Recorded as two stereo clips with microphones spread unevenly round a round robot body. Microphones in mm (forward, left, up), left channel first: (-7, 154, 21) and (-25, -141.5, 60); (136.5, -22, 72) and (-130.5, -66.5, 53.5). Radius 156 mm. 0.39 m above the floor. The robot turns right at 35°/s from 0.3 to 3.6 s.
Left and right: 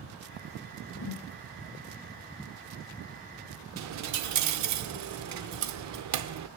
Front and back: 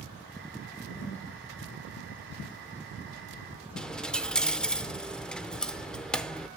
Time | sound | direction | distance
0.9 | a whoosh | 105° left | 1.6 m
3.8 | a dropped coin | 80° right | 0.6 m